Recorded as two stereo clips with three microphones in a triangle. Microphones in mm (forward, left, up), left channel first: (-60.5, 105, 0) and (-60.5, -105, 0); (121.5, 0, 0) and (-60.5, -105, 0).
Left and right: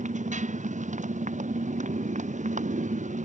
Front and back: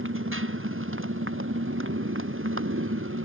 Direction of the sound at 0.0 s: 145° right.